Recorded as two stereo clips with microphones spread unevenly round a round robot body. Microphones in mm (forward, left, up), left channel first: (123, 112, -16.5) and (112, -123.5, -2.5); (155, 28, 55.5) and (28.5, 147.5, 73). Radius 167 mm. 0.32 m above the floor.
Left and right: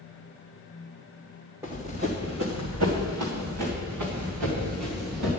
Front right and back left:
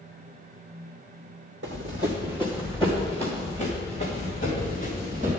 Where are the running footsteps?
175° right, 1.1 m; by 5.3 s 110° right, 3.5 m.